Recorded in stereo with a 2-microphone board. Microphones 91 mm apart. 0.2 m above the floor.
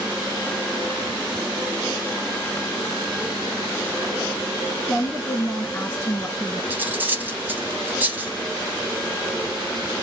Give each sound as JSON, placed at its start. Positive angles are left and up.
{"t": 4.9, "sound": "a woman speaking", "side_deg": 20, "distance_m": 1.9}
{"t": 6.7, "sound": "cutlery clinking", "side_deg": -20, "distance_m": 0.7}